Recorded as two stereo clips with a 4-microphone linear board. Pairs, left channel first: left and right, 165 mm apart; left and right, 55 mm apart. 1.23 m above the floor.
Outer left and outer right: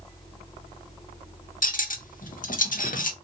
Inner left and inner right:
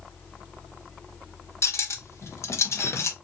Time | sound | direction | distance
1.6 | cutlery clinking | 60° left (ahead or behind) | 0.5 m